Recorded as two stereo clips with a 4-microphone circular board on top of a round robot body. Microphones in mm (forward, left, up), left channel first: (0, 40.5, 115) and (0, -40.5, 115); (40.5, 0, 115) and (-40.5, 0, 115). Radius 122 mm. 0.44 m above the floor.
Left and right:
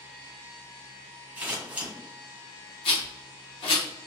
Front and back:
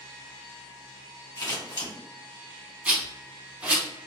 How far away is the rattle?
About 0.8 m.